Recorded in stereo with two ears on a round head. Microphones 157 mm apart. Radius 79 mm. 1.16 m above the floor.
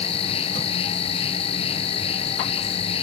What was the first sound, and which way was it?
An insect, 35° left (ahead or behind).